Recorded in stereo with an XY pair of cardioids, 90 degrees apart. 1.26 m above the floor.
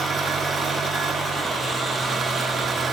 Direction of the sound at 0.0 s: 45° right.